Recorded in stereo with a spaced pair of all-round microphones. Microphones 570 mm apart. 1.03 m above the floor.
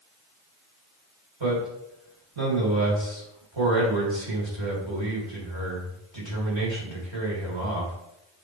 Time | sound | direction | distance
1.4 | a man speaking | 50° right (ahead or behind) | 3 m